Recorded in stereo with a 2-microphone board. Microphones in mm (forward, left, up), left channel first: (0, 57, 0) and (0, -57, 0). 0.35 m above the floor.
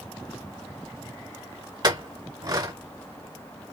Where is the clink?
40° right (ahead or behind), 1.1 m.